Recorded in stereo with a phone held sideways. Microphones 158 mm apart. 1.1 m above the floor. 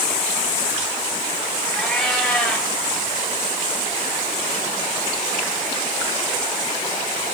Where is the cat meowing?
Centre (ahead or behind), 7 m.